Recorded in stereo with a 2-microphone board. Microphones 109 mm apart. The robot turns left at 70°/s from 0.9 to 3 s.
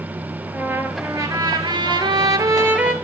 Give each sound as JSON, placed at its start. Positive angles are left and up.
{"t": 0.5, "sound": "a trumpet", "azimuth_deg": -30, "distance_m": 0.7}